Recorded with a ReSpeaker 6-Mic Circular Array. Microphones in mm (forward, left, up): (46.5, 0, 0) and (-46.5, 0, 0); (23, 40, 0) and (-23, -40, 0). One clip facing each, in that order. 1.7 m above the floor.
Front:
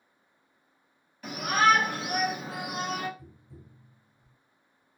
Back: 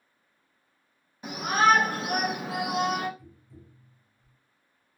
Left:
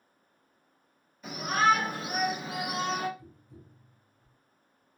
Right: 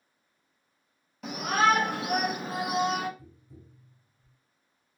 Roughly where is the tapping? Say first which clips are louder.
Even, even; ahead right.